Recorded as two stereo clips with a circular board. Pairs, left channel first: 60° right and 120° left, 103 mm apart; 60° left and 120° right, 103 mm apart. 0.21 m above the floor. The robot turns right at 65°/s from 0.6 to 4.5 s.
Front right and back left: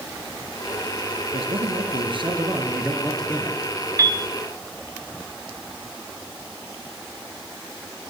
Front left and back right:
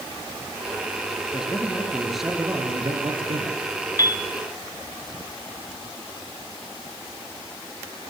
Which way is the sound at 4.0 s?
85° left.